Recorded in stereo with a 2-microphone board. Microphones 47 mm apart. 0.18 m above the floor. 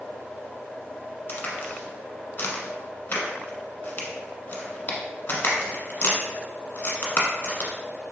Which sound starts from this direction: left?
A crack, at 1.3 s.